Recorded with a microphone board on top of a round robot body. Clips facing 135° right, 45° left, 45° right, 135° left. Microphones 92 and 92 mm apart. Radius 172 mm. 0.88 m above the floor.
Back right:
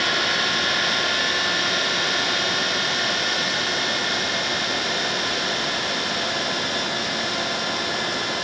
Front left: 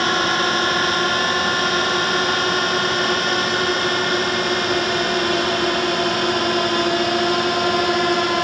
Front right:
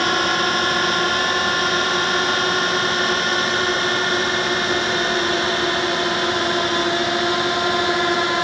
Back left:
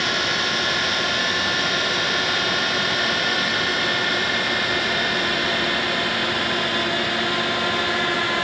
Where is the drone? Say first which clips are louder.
Front left 5 dB, front right 5 dB; straight ahead; by 8.4 s 20° left.